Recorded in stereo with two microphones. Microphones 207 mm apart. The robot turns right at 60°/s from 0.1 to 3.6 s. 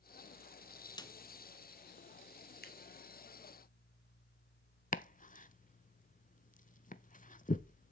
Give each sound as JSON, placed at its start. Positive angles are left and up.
{"t": 1.0, "sound": "a snare drum", "side_deg": 20, "distance_m": 0.6}
{"t": 2.6, "sound": "scissors", "side_deg": 50, "distance_m": 2.5}
{"t": 4.9, "sound": "chopping", "side_deg": 40, "distance_m": 0.6}